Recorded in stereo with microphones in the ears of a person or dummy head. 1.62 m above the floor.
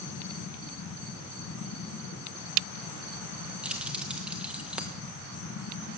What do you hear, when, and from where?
0.0 s a fan: 65° left (ahead or behind), 3 m
3.6 s keys jangling: 5° right (ahead or behind), 1.1 m